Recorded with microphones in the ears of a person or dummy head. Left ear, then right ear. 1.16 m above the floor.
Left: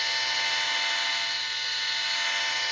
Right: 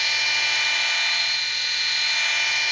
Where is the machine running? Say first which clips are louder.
Right 5 dB; 60° right (ahead or behind), 0.7 m.